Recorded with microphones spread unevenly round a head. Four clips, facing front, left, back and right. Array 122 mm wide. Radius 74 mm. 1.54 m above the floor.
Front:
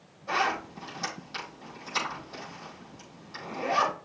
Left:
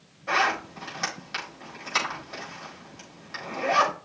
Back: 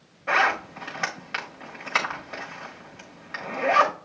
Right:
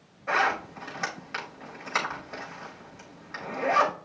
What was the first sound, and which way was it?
A zipper, 165° left.